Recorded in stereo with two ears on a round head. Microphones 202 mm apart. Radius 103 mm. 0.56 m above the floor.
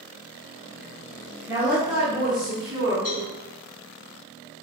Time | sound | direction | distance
1.5 | a woman speaking | 10° right (ahead or behind) | 1.5 m
3.0 | a cowbell | 10° right (ahead or behind) | 1.8 m